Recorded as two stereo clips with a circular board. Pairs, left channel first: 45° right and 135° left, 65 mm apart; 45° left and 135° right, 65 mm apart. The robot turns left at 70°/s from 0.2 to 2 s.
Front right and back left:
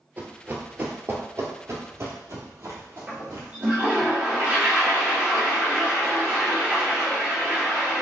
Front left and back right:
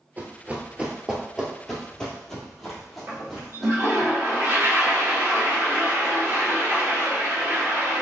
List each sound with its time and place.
0.2 s running footsteps: straight behind, 1.0 m; by 4.1 s 140° left, 2 m
3.1 s a toilet flushing: 175° right, 1.6 m